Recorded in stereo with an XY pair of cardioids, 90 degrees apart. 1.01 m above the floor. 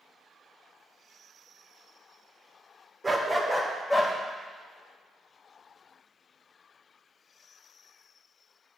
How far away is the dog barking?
About 1.3 m.